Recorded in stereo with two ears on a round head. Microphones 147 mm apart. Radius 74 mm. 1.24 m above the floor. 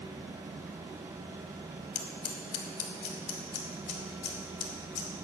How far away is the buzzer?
No buzzer in this recording.